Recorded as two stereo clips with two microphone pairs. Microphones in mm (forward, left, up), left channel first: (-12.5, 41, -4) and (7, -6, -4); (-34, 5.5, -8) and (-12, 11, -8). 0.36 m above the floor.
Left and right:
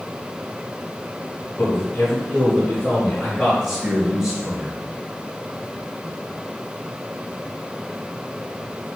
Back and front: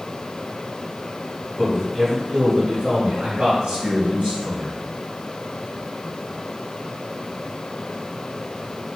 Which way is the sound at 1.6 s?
100° left.